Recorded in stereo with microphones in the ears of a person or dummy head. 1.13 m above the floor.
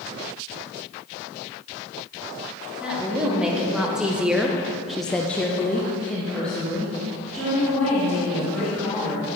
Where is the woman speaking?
5° right (ahead or behind), 3 m; by 9.2 s 5° left (ahead or behind), 5 m.